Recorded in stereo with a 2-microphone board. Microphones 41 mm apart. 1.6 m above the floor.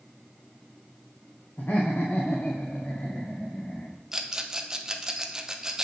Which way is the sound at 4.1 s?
15° right (ahead or behind).